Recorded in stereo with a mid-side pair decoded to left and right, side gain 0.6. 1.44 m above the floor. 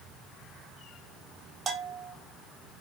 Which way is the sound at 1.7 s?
30° right.